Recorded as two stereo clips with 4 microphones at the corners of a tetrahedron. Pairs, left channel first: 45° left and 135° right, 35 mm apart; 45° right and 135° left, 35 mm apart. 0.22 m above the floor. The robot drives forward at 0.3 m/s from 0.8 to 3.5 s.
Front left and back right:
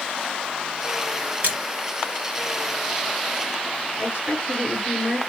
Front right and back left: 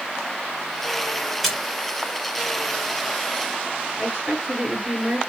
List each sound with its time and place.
1.4 s a splash: 135° right, 1.4 m; by 1.6 s 140° right, 1.4 m
4.0 s a woman speaking: 175° right, 4.5 m